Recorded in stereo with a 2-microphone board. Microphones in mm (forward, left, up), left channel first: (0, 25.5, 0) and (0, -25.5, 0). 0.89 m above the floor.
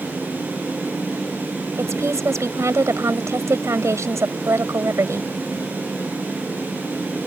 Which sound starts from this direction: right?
A woman speaking, at 1.8 s.